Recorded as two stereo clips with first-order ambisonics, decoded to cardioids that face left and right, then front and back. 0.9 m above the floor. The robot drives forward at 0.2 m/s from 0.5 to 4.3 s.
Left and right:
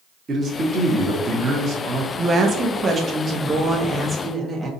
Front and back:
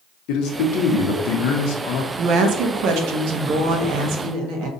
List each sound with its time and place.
0.3 s a man speaking: 25° right, 1.1 m; by 2.1 s 30° right, 0.9 m
2.2 s a woman speaking: 155° right, 0.6 m; by 4.7 s 165° right, 1.0 m